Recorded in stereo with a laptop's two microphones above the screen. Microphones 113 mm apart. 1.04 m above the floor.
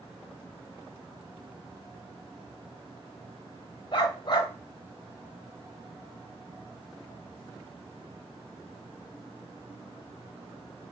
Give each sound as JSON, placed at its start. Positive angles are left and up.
{"t": 3.9, "sound": "a dog barking", "side_deg": 50, "distance_m": 2.5}